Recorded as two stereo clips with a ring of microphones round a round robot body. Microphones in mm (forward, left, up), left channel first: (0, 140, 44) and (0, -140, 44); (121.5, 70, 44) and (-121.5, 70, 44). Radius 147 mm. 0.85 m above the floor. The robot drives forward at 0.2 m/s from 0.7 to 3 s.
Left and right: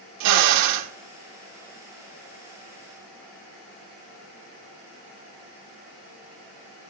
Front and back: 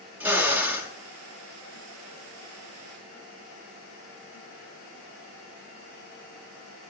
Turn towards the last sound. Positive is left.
turn(degrees=-125)